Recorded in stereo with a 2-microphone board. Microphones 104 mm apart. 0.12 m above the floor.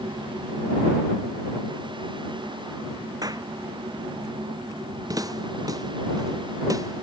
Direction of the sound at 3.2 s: 40° right (ahead or behind).